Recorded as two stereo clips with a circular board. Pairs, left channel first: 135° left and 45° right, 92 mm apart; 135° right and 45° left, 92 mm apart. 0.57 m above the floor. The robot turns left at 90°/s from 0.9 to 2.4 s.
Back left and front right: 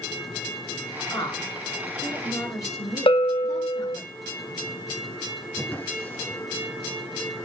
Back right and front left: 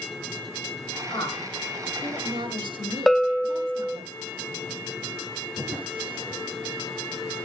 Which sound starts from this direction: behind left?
A bell, at 3.1 s.